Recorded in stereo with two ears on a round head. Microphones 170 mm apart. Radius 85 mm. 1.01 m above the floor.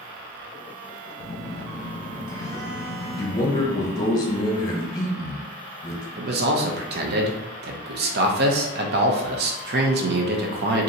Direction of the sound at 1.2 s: 20° left (ahead or behind).